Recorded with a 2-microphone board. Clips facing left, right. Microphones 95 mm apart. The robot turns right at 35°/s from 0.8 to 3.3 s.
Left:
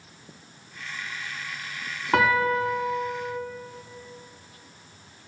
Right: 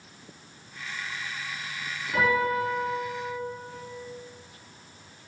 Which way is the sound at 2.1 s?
90° left.